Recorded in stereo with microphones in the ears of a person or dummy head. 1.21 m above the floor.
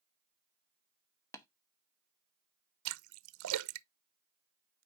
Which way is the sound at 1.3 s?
15° left (ahead or behind).